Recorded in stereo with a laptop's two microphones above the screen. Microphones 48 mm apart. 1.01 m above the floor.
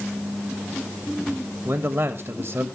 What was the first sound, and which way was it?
A man speaking, 50° right (ahead or behind).